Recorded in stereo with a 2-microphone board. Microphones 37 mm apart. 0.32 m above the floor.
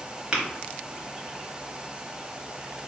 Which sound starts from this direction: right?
Tapping, at 0.3 s.